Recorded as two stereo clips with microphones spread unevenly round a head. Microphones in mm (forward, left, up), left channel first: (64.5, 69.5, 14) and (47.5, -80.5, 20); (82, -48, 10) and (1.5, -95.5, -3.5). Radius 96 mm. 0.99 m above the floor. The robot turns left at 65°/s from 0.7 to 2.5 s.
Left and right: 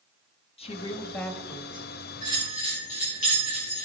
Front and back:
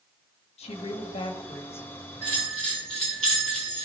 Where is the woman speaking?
35° left, 1.4 m; by 1.9 s 45° right, 1.4 m.